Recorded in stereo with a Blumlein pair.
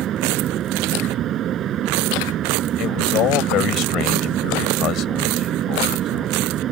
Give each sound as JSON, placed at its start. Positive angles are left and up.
{"t": 0.0, "sound": "a fan", "azimuth_deg": -30}
{"t": 2.8, "sound": "a man speaking", "azimuth_deg": 35}